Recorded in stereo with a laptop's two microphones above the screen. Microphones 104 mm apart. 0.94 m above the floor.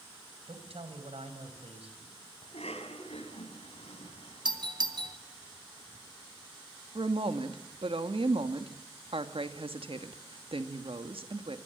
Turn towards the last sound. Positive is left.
turn(degrees=-65)  # may be behind; listen again after turning